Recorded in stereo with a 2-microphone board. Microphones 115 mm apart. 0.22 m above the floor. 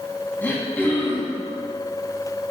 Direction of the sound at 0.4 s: 15° left (ahead or behind).